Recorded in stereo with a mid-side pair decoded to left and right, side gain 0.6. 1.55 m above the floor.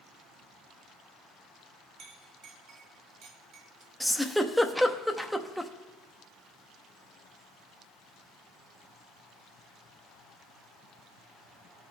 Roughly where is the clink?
Ahead right.